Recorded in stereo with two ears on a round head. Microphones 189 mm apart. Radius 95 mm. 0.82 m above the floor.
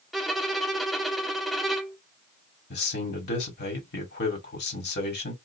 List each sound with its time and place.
0.1 s a violin: centre (ahead or behind), 0.6 m
2.7 s a man speaking: 55° left (ahead or behind), 1.9 m